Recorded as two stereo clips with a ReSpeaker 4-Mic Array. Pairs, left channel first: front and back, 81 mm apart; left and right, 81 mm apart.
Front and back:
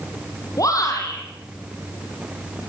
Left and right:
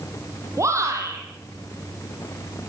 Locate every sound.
0.6 s a shout: 40° right, 6 m